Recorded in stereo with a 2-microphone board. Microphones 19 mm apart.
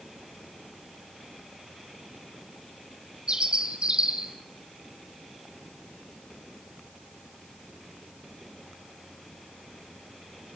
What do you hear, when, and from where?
3.3 s a bird: 60° right (ahead or behind), 4 m